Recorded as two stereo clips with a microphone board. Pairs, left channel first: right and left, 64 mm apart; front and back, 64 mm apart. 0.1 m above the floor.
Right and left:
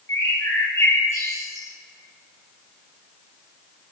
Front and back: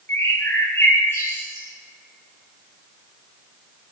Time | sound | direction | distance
0.1 | a bird | 50° right | 9.5 m